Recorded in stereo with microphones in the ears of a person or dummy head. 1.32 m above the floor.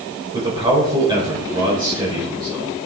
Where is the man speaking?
25° right (ahead or behind), 5.5 m.